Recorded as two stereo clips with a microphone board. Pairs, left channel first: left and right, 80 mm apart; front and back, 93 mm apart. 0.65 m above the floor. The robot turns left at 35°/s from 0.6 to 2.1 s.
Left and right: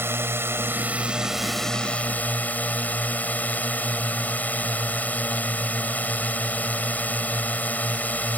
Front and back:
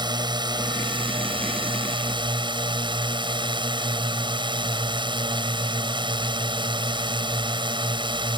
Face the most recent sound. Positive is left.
turn(degrees=160)